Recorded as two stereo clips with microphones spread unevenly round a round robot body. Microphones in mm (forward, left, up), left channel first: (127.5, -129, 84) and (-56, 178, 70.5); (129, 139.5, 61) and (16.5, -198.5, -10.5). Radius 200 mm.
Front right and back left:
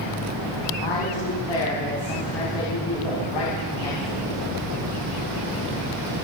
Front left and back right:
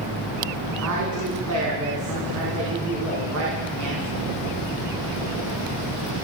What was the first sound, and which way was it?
A woman speaking, 65° right.